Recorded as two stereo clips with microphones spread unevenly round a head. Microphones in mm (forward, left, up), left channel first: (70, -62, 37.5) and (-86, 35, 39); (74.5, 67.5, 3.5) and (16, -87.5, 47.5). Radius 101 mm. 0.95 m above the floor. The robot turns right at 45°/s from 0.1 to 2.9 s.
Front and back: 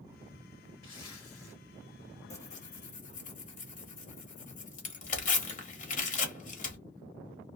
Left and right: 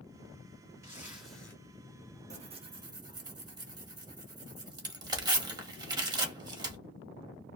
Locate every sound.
0.8 s a zipper: 50° right, 1.6 m; by 1.6 s 15° right, 1.6 m
2.3 s tearing paper: 65° right, 1.1 m; by 6.8 s 40° right, 1.1 m